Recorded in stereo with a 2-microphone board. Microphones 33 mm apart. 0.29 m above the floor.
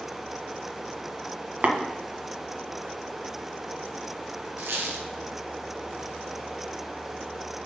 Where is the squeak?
85° right, 1.8 m.